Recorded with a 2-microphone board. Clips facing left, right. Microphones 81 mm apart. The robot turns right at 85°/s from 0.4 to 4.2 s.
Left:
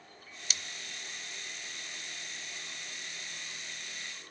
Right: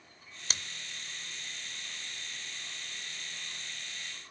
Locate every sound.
0.5 s scissors: 40° right (ahead or behind), 0.6 m; by 0.6 s 35° right (ahead or behind), 0.6 m